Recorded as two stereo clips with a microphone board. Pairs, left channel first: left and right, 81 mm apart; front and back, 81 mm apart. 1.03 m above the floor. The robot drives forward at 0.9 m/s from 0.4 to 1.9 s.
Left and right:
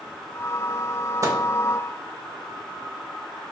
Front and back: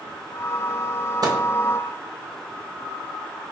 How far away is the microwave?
About 0.6 m.